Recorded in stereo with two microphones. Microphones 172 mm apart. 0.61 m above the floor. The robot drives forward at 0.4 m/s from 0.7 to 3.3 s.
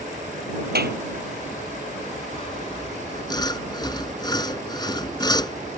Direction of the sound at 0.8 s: 65° right (ahead or behind).